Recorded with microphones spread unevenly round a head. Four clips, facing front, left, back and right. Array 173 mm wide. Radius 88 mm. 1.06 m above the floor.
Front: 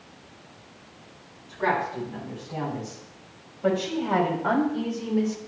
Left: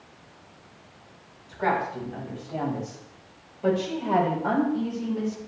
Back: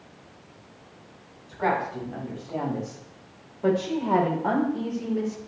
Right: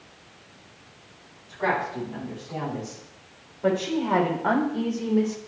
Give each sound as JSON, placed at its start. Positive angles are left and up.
{"t": 1.5, "sound": "a woman speaking", "azimuth_deg": 180, "distance_m": 7.0}